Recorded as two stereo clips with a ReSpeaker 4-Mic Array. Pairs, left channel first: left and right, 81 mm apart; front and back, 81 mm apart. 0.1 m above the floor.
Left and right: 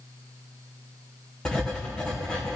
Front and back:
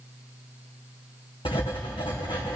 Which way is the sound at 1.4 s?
10° left.